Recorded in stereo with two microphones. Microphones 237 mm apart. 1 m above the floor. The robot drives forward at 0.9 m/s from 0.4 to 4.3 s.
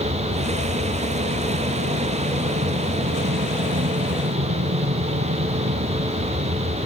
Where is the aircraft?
50° right (ahead or behind); by 6.9 s 45° right (ahead or behind).